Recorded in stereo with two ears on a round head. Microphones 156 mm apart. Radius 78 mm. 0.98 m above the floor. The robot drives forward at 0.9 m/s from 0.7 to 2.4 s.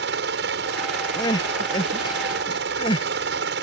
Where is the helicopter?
70° right (ahead or behind).